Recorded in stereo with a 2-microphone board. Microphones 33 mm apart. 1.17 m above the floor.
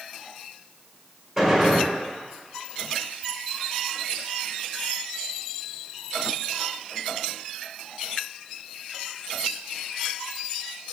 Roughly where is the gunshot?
Centre.